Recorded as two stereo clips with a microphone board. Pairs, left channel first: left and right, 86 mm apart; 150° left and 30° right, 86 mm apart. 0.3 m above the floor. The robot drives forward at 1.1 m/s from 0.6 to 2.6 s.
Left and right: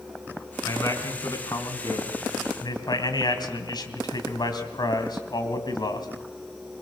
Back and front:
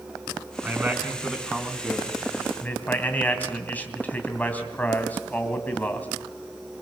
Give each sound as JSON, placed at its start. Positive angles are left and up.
{"t": 0.6, "sound": "a man speaking", "azimuth_deg": 40, "distance_m": 3.5}